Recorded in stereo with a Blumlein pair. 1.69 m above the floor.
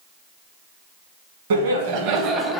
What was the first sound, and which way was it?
Laughter, 60° right.